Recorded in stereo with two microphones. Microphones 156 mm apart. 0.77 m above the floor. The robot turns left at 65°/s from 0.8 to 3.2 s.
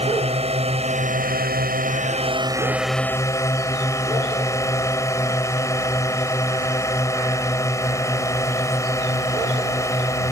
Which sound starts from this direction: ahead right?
A drone, at 0.0 s.